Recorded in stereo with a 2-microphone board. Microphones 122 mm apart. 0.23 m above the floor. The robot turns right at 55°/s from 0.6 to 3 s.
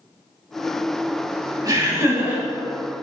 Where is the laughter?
65° right, 1.1 m; by 2.4 s 20° right, 1.1 m.